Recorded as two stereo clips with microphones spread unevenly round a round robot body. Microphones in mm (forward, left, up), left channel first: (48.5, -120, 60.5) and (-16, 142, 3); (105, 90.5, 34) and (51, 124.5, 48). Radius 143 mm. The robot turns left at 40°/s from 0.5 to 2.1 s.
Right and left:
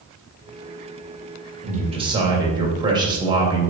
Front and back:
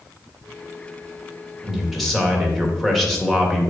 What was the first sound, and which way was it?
A man speaking, 65° left.